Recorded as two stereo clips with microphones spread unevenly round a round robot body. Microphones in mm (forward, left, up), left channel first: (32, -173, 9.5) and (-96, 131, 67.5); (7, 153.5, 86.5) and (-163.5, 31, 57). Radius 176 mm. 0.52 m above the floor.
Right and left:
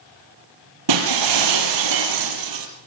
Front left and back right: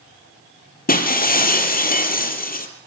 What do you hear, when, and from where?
0.9 s breaking glass: 80° left, 4 m